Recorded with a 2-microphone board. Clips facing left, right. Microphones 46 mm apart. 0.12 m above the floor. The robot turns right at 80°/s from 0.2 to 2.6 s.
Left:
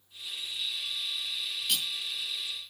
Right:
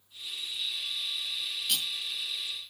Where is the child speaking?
No child speaking in this recording.